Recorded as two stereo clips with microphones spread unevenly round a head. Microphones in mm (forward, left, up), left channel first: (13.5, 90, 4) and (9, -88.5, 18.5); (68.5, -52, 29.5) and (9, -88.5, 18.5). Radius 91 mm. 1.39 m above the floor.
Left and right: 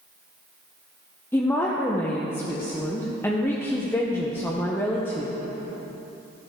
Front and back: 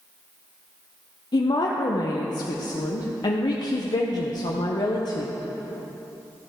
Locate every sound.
1.3 s a woman speaking: 10° left, 0.9 m